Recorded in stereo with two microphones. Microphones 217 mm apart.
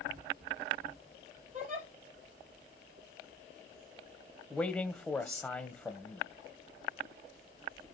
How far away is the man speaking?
About 1.3 m.